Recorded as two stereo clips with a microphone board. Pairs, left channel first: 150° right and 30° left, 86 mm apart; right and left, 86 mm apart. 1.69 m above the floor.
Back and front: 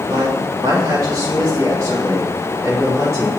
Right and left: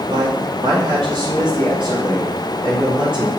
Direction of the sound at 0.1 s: 80° left.